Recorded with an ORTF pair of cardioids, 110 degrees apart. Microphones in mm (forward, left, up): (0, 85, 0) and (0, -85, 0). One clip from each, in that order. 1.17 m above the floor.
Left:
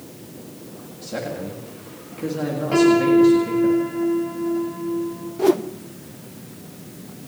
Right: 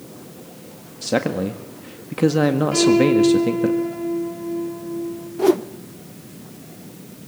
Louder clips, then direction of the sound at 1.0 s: Right 8 dB; 65° right.